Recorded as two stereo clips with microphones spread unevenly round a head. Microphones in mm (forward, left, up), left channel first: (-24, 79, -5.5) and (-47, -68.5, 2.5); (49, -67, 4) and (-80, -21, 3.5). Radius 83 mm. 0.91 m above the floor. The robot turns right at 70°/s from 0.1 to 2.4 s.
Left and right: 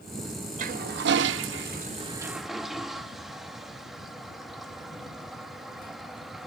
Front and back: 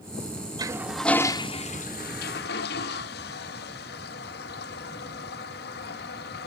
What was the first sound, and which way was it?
A toilet flushing, 135° right.